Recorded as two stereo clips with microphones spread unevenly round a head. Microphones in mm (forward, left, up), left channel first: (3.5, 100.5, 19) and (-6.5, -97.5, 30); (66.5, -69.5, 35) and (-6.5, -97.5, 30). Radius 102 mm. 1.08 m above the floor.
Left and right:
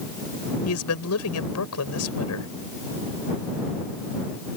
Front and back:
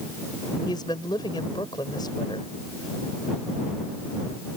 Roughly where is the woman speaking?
Left.